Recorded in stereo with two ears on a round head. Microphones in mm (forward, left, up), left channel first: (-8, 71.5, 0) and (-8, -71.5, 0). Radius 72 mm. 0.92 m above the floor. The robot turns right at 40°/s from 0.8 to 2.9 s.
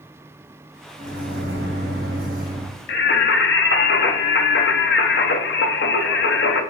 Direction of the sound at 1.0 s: 120° right.